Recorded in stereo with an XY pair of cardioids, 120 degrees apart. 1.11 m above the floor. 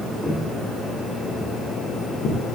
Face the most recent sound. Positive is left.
turn(degrees=50)